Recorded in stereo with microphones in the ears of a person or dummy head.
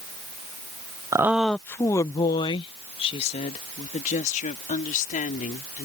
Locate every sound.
1.1 s a woman speaking: 15° right (ahead or behind); by 5.9 s 45° left (ahead or behind)